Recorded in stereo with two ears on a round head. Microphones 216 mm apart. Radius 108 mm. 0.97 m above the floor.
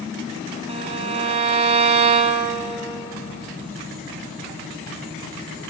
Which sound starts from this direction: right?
A violin, at 0.7 s.